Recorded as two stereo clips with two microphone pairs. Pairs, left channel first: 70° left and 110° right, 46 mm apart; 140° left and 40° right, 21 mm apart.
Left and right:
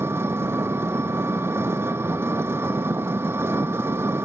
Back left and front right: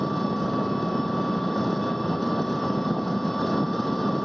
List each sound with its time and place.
0.0 s an engine running: 130° right